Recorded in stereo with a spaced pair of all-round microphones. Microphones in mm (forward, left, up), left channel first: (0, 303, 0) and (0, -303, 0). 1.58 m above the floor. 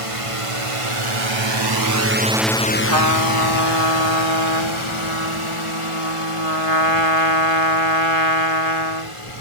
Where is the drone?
60° right (ahead or behind); by 9.4 s 55° left (ahead or behind).